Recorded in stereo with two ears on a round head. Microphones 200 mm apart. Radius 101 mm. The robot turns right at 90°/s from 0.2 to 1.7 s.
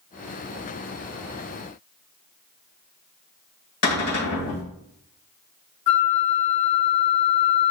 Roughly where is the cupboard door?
Left.